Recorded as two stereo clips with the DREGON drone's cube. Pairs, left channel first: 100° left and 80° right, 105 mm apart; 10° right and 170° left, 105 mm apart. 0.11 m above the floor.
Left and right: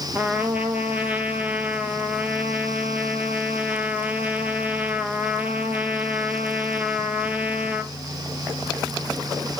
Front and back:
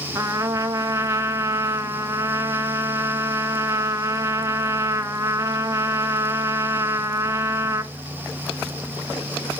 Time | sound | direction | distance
0.1 | a trumpet | 145° right | 0.7 m